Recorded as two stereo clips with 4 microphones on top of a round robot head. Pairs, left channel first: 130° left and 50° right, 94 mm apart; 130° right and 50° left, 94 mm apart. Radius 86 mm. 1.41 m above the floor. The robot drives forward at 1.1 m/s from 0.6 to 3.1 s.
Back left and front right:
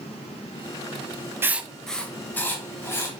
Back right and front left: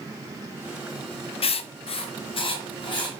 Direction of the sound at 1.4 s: 115° right.